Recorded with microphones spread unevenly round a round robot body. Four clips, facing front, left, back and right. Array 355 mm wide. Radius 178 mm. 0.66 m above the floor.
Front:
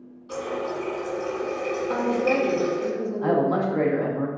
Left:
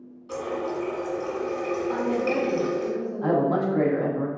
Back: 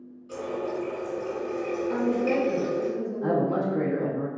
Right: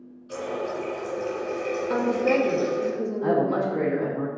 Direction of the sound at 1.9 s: 65° right.